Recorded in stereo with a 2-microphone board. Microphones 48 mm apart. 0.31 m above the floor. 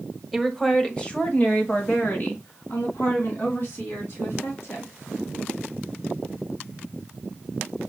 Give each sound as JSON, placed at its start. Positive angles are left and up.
{"t": 0.3, "sound": "a woman speaking", "side_deg": 0, "distance_m": 1.1}